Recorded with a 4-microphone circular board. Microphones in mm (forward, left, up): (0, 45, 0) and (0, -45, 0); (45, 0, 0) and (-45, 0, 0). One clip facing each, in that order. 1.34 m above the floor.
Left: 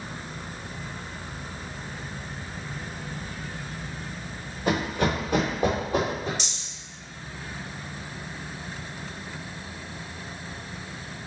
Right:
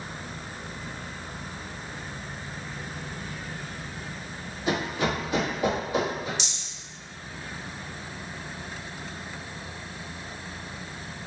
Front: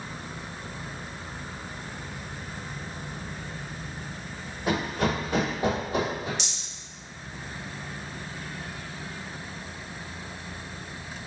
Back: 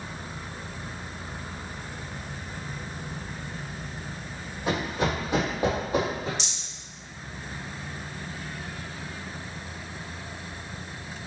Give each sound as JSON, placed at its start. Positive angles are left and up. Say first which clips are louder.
{"t": 4.7, "sound": "running footsteps", "louder": "left 2 dB, front 1 dB", "azimuth_deg": 95, "distance_m": 1.7}
{"t": 6.4, "sound": "a rattle", "louder": "even, even", "azimuth_deg": 135, "distance_m": 1.7}